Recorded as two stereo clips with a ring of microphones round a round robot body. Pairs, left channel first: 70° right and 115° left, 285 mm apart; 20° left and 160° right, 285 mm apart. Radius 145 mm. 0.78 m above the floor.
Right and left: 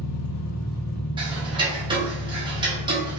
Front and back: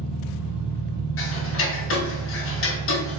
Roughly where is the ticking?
Ahead left.